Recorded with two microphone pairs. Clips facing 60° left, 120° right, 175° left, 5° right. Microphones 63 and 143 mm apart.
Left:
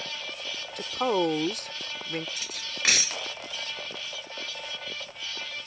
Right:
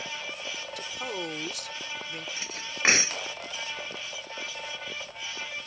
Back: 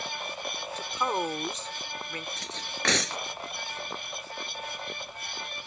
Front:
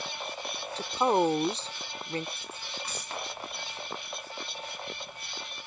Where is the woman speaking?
40° left.